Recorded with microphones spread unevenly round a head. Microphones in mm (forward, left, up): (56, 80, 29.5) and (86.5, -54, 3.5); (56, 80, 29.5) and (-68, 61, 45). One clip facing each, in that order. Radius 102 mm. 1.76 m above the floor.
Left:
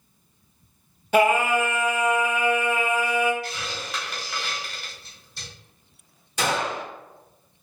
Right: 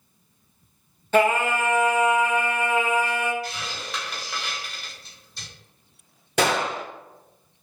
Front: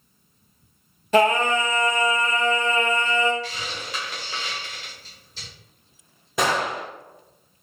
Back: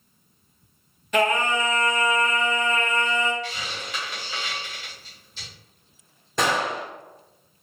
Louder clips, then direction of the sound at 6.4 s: Right 3 dB, front 1 dB; 85° right.